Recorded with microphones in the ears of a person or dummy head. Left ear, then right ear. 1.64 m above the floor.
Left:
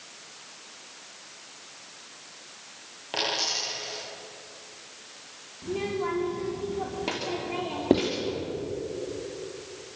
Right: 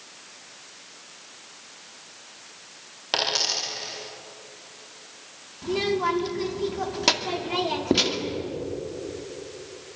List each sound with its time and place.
3.1 s a dropped coin: 65° right (ahead or behind), 8 m
5.6 s a child speaking: 60° right (ahead or behind), 2.5 m
7.9 s writing: 15° left (ahead or behind), 2.5 m